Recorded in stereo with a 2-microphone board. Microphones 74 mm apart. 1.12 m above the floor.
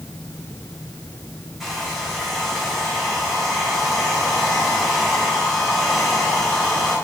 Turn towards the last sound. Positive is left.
turn(degrees=0)  # may be behind; listen again after turning